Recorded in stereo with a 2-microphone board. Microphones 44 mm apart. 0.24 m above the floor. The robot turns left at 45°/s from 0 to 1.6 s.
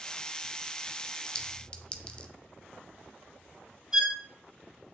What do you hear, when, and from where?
1.4 s a clink: 20° left (ahead or behind), 0.7 m; by 2.3 s 25° left (ahead or behind), 0.7 m
3.9 s a violin: 15° right (ahead or behind), 2.5 m